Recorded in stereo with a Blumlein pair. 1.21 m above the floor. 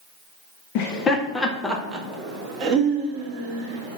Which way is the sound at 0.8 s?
40° left.